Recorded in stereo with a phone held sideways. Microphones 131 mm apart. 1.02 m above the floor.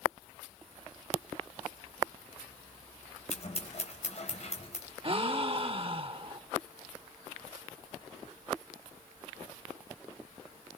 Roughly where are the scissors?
Left.